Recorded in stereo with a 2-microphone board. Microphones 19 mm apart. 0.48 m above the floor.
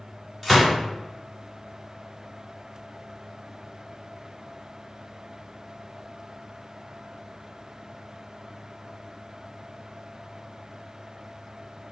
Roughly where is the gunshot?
Centre.